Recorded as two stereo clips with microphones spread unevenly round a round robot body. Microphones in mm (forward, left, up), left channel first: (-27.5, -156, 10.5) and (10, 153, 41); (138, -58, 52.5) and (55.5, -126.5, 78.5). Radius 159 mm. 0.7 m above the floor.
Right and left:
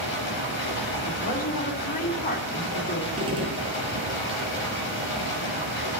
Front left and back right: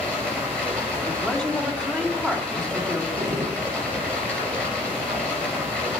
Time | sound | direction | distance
0.0 | running water | 40° right | 4.5 m
1.1 | a woman speaking | 40° right | 2.5 m
3.2 | a gunshot | 160° left | 1.0 m